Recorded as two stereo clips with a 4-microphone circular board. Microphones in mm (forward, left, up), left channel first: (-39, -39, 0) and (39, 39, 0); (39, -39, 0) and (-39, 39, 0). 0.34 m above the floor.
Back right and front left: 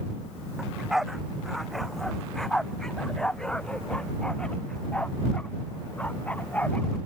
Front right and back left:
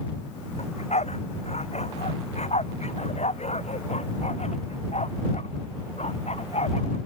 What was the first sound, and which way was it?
A dog barking, 40° right.